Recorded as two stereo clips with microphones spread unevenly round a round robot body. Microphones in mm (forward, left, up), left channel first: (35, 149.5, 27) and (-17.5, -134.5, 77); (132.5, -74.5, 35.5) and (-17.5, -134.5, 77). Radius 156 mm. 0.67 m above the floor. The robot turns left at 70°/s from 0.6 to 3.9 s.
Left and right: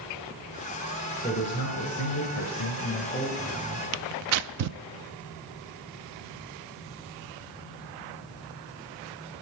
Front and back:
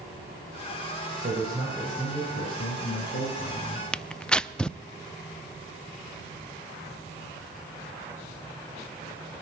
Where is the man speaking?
145° left, 4.5 m; by 3.8 s 35° right, 4.5 m.